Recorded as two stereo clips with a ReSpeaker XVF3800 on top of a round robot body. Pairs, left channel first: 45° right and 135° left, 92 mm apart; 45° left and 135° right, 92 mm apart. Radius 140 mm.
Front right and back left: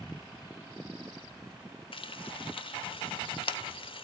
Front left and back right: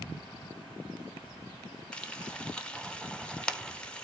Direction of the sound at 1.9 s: 35° right.